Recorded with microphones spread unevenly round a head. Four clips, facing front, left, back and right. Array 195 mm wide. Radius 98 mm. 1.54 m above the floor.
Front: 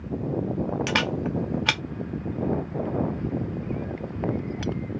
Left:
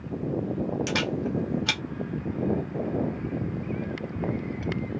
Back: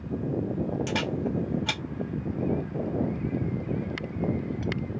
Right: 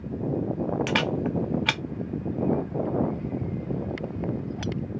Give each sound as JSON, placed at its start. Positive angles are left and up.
{"t": 0.9, "sound": "a camera shutter", "azimuth_deg": -5, "distance_m": 0.7}